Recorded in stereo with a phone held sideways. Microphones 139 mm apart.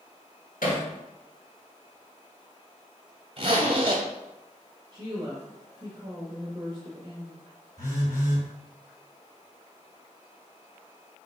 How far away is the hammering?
About 1.4 m.